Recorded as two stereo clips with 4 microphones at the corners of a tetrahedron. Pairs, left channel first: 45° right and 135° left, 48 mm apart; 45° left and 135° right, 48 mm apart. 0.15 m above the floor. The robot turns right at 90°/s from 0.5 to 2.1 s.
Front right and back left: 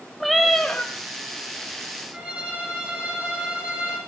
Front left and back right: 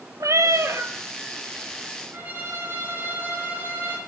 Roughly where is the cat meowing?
Behind right.